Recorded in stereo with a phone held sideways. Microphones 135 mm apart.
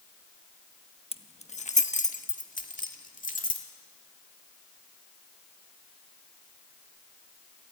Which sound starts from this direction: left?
Keys jangling, at 1.1 s.